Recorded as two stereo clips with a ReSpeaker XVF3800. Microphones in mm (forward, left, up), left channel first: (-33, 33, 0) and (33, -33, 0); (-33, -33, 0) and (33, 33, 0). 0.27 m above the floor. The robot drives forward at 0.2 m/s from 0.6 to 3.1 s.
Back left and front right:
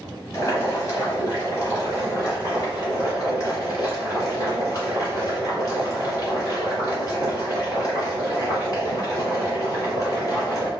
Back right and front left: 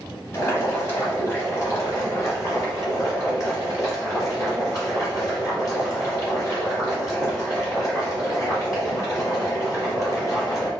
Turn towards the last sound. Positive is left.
turn(degrees=180)